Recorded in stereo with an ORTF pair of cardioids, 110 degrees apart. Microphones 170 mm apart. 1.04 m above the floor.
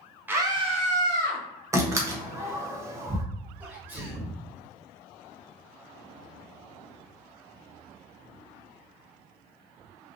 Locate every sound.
0.3 s a scream: 10° right, 0.8 m; by 1.4 s 65° right, 1.4 m
1.7 s a door slam: 15° right, 0.7 m
3.6 s a sneeze: 10° right, 1.5 m